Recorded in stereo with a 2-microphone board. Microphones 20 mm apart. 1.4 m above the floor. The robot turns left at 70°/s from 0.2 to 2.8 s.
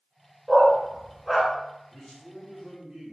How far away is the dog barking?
About 1.5 m.